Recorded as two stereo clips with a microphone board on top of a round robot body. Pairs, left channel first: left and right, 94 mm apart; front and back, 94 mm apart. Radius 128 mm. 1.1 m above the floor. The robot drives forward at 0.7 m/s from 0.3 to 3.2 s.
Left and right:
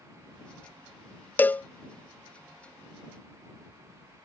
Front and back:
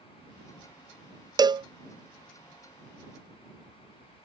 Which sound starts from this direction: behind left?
A cowbell, at 1.4 s.